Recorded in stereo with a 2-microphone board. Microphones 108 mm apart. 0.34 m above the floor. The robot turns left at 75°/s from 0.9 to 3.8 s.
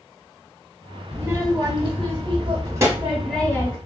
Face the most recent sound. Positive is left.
turn(degrees=145)